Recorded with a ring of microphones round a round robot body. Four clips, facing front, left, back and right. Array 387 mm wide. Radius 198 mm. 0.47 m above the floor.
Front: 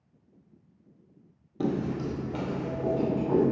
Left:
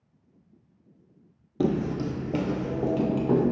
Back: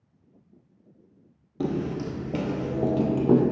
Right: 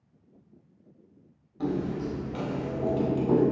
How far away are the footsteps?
About 0.8 m.